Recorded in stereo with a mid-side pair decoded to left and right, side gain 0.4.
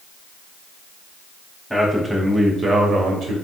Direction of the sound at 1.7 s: 5° left.